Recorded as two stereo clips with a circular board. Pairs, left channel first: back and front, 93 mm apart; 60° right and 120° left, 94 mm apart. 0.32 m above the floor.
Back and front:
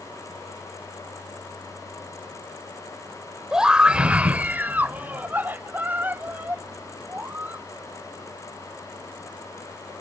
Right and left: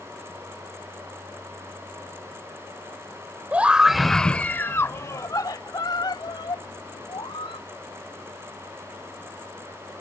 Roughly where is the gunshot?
No gunshot in this recording.